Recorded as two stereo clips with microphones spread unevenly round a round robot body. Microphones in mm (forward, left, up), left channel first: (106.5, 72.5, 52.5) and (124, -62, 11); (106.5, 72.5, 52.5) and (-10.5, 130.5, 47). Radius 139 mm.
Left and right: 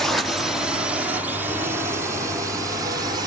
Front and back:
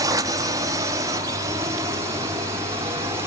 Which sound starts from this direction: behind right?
A drone, at 0.0 s.